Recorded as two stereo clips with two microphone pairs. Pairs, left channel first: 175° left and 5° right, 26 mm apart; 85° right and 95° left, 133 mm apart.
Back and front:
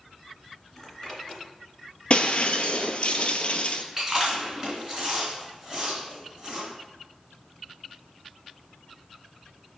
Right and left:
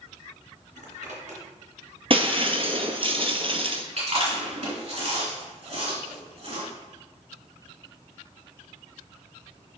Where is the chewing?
60° left, 3 m.